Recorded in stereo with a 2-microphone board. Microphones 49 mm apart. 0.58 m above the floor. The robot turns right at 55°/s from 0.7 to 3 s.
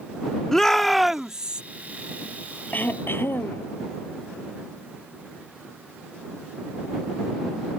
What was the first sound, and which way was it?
A shout, 170° left.